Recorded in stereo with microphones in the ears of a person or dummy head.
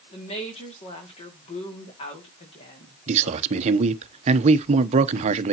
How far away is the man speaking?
About 0.8 m.